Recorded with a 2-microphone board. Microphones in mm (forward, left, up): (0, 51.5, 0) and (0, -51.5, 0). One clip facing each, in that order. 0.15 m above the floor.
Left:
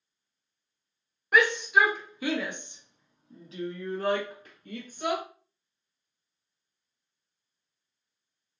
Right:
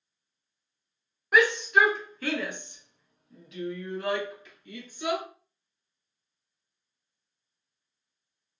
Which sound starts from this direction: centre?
A shout, at 1.3 s.